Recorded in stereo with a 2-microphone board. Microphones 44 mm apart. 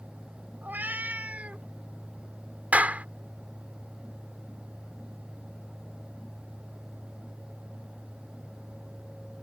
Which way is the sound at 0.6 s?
45° right (ahead or behind).